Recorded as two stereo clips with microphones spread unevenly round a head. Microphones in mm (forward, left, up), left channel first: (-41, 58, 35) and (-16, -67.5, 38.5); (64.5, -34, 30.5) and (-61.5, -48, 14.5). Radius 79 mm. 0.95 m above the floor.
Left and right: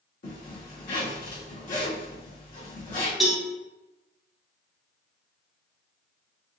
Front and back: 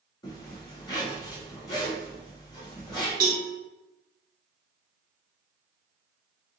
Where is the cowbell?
170° right, 1.3 m.